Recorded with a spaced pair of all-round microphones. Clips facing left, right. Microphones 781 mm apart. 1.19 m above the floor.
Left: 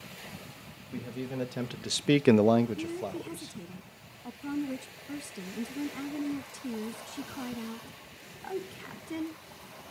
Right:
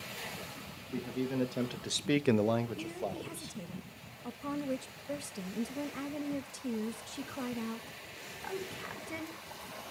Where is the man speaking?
15° left (ahead or behind), 1.3 m; by 3.6 s 30° left (ahead or behind), 1.3 m.